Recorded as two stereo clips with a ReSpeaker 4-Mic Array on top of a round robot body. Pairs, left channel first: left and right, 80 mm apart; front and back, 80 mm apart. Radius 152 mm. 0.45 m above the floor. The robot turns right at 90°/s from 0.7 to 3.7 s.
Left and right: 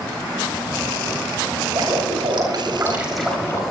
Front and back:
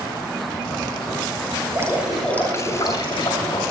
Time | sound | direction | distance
1.7 | dripping | 130° right | 7.5 m